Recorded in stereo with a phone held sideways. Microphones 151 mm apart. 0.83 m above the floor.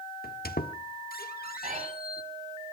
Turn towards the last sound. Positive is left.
turn(degrees=-50)  # may be behind; listen again after turning